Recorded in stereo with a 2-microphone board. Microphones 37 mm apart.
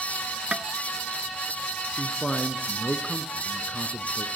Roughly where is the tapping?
Right.